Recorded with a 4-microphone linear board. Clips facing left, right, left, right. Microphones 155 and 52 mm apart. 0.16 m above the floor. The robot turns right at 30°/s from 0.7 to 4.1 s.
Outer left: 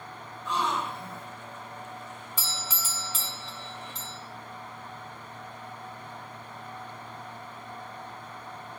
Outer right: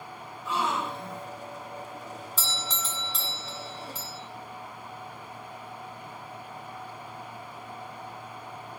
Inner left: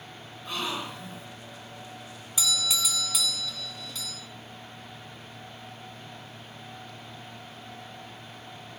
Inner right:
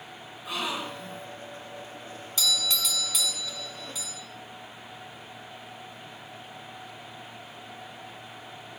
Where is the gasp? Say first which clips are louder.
Even, inner right 1 dB; 5° right (ahead or behind), 2.0 m; by 1.3 s 5° left (ahead or behind), 2.0 m.